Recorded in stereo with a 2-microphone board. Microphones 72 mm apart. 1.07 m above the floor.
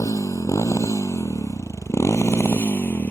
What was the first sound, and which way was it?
A motorcycle, 55° left (ahead or behind).